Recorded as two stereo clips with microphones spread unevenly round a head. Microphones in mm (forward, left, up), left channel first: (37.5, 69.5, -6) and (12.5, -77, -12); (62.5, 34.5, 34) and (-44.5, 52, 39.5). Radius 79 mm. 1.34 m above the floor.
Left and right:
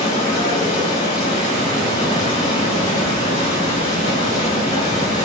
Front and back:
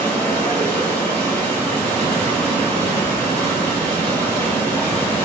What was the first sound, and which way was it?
Running water, 65° left.